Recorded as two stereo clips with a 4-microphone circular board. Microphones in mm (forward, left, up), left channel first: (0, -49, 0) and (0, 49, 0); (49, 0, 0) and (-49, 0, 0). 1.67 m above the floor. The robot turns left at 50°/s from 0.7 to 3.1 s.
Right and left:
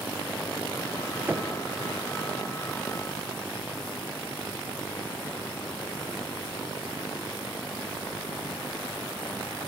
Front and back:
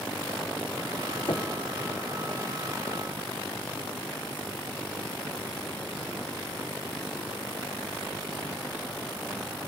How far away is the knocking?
About 1.2 m.